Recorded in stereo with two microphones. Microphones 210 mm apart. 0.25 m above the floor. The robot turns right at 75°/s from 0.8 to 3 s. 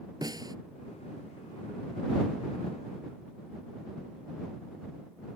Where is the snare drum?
20° right (ahead or behind).